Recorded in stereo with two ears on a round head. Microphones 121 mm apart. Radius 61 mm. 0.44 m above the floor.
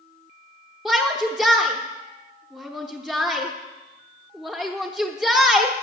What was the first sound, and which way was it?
A shout, 5° right (ahead or behind).